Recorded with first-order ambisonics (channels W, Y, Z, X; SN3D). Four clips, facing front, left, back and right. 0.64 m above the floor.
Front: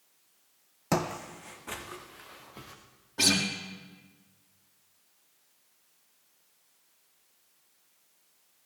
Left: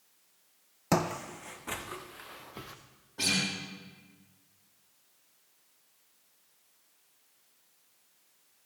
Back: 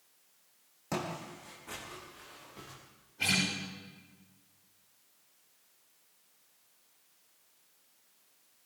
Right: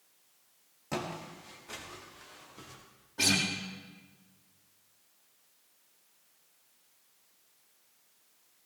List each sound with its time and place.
0.9 s footsteps: 50° left, 1.4 m; by 2.8 s 70° left, 3.5 m
3.2 s a guitar: 5° right, 5 m